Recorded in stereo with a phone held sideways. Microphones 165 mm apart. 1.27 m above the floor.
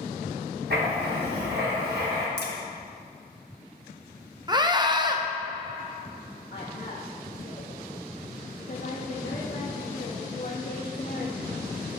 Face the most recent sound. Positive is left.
turn(degrees=75)  # may be behind; listen again after turning